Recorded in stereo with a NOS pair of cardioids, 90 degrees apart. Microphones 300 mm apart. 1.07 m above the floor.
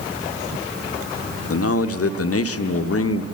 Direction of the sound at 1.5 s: 50° left.